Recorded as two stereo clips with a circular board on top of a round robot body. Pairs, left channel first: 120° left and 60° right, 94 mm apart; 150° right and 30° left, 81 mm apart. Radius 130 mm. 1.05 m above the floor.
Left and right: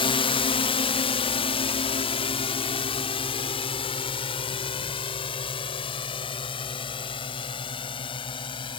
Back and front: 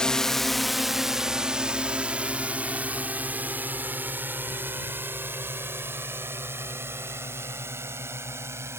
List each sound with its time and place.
0.0 s a drone: 130° left; by 8.8 s 90° left